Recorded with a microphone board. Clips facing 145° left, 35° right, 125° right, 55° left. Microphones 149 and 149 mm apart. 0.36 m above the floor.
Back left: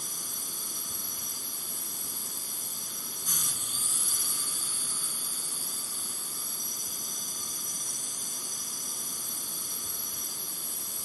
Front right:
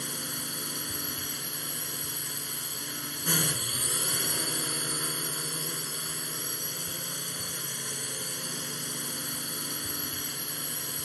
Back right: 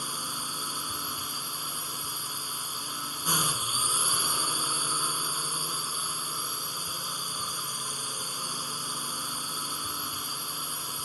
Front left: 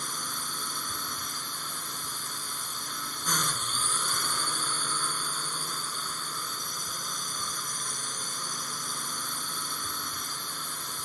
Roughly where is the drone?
Ahead right.